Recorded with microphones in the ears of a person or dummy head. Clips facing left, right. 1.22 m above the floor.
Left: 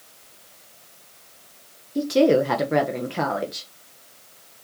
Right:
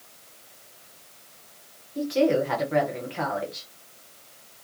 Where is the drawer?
No drawer in this recording.